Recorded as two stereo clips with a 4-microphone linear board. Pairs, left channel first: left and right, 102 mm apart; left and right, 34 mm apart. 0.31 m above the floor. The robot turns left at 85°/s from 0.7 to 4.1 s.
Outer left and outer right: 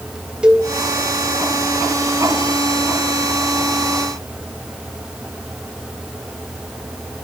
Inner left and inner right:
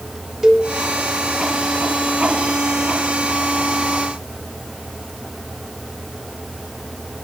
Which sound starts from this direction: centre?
A cowbell, at 0.4 s.